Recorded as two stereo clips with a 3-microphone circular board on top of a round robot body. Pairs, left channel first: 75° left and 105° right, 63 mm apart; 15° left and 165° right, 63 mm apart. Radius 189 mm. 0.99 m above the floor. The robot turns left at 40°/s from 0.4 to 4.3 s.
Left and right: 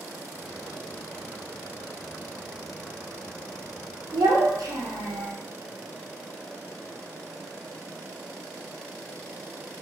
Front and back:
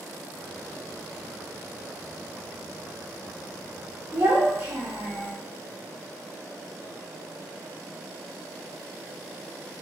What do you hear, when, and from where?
4.1 s a child speaking: 95° right, 1.0 m; by 5.3 s 105° right, 1.0 m